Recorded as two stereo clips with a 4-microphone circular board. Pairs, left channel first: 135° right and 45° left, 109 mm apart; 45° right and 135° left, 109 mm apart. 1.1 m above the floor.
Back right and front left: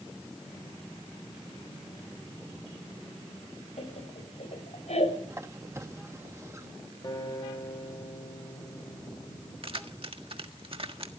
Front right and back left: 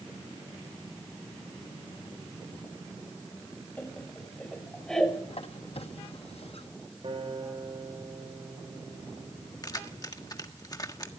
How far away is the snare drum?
I don't hear a snare drum.